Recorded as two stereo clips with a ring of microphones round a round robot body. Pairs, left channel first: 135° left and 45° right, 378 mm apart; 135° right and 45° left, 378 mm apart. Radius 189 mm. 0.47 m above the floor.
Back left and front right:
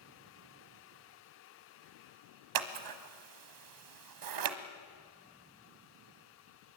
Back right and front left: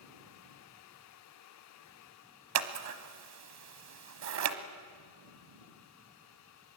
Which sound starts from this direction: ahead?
Scissors, at 2.5 s.